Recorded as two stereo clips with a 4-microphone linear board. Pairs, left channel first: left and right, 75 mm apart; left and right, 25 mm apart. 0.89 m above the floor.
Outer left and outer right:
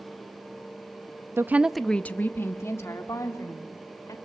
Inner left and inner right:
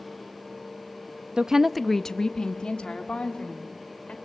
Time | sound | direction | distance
1.4 | a woman speaking | 40° right (ahead or behind) | 0.6 m